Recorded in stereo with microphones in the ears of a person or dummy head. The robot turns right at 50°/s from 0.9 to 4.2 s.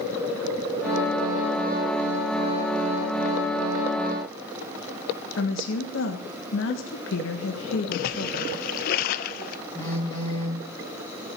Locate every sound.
5.4 s a woman speaking: 65° left (ahead or behind), 1.5 m
7.9 s a splash: 50° left (ahead or behind), 0.7 m
9.8 s a phone buzzing: 15° left (ahead or behind), 3 m